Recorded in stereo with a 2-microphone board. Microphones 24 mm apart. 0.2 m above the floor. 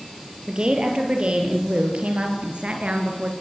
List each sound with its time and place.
0.5 s a woman speaking: 40° right (ahead or behind), 6 m; by 3.3 s 50° right (ahead or behind), 4 m